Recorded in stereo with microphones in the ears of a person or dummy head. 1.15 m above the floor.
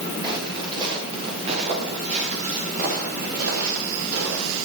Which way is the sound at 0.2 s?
25° right (ahead or behind).